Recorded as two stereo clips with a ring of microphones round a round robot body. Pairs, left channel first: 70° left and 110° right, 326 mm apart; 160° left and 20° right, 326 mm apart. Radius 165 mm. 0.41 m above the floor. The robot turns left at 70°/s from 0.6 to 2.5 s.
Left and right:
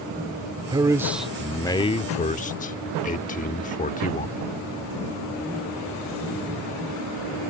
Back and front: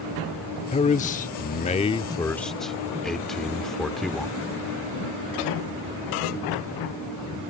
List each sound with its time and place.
0.7 s a man speaking: 165° right; by 4.4 s 70° left